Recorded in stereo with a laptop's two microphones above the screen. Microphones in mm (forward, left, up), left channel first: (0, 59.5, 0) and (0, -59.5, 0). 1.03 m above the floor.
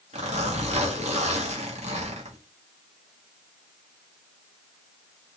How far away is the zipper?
About 1.6 m.